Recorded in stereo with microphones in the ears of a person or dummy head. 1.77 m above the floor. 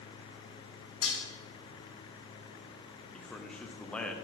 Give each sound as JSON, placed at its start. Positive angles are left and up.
{"t": 1.0, "sound": "dishes clattering", "side_deg": 60, "distance_m": 2.5}
{"t": 3.1, "sound": "a man speaking", "side_deg": 5, "distance_m": 0.6}